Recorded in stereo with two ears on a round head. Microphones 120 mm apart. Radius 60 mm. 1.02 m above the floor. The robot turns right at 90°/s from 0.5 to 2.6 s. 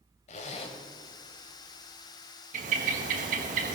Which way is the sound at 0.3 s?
55° left (ahead or behind).